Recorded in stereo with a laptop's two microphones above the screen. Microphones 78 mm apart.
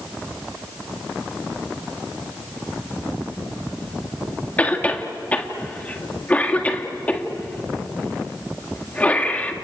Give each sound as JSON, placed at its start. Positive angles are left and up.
{"t": 4.6, "sound": "a cough", "side_deg": 20, "distance_m": 1.5}